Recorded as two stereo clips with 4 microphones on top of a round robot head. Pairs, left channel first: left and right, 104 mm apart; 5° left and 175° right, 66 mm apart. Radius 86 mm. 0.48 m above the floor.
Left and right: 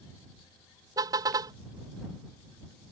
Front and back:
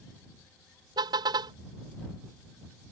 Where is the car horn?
150° right.